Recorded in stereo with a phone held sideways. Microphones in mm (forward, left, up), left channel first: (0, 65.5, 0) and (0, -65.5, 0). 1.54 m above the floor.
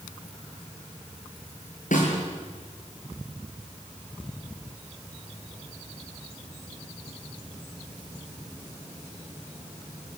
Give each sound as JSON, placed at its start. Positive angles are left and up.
{"t": 1.9, "sound": "a snare drum", "side_deg": 80, "distance_m": 7.5}